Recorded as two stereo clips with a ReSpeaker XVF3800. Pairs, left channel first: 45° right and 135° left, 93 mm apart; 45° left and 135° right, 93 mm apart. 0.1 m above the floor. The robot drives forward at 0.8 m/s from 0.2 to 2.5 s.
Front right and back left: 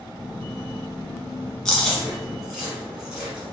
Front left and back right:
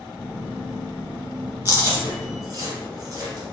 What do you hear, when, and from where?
1.6 s chewing: 125° right, 1.8 m; by 3.5 s 150° right, 2 m